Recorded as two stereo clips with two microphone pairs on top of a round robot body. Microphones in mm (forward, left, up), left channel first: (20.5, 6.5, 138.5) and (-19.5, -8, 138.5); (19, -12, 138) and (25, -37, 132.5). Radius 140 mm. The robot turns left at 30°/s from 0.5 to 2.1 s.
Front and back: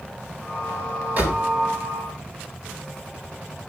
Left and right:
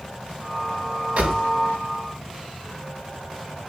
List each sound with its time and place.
1.2 s a door slam: 110° right, 3.5 m; by 1.4 s 120° right, 3.5 m